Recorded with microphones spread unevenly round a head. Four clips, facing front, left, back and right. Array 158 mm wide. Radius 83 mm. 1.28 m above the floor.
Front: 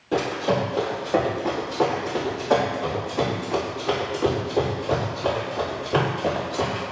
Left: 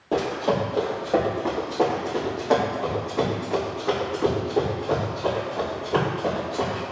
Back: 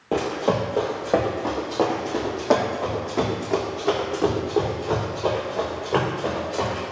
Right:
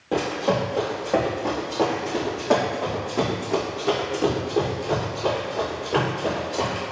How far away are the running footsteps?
About 1.3 m.